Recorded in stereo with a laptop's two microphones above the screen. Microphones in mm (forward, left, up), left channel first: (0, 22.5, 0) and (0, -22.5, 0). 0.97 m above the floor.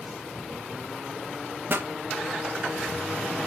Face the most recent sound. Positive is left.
turn(degrees=-55)  # may be behind; listen again after turning